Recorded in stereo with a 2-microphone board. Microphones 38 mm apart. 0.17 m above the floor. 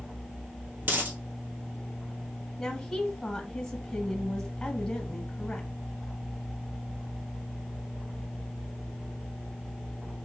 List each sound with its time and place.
0.8 s a dropped coin: 55° right (ahead or behind), 1.3 m
2.6 s a woman speaking: 15° left (ahead or behind), 1.0 m